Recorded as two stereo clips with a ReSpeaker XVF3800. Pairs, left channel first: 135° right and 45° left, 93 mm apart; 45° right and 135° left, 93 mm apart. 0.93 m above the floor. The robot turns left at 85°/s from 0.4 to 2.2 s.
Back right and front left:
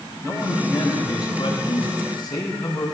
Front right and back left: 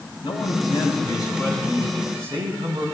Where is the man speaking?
20° right, 7 m; by 2.9 s 175° right, 7 m.